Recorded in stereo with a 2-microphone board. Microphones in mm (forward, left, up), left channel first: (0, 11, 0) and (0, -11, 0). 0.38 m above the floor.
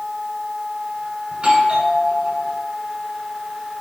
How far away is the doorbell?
About 6 m.